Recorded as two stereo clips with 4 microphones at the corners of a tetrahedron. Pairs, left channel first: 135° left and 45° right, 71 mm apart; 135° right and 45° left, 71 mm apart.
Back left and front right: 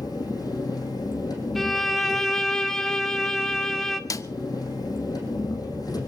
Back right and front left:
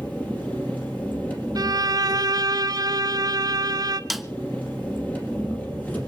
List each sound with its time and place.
0.0 s an engine running: 160° left, 4.5 m
1.6 s a violin: 50° left, 0.8 m
4.1 s a snare drum: 135° left, 0.6 m